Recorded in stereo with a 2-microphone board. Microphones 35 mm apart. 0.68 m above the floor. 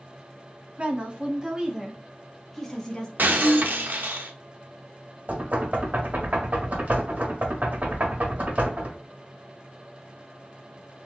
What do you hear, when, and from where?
0.8 s a woman speaking: 40° right (ahead or behind), 1.3 m; by 3.1 s 20° left (ahead or behind), 1.2 m
3.2 s breaking glass: 75° right (ahead or behind), 0.7 m
5.3 s knocking: 60° right (ahead or behind), 1.7 m